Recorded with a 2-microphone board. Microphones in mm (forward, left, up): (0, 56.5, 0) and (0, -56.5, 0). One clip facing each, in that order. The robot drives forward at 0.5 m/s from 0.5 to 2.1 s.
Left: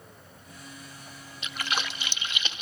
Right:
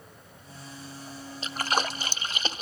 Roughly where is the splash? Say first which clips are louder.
Right 5 dB; right.